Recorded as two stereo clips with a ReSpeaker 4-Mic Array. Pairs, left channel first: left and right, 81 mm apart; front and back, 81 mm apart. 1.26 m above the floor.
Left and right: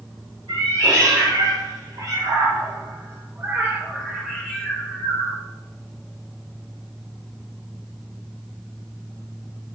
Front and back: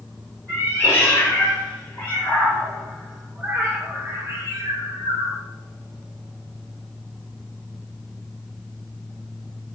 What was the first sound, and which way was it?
A cat meowing, 60° right.